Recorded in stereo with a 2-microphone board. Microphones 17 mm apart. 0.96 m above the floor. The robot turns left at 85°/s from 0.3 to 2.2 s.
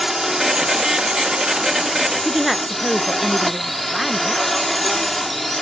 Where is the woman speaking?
10° right (ahead or behind).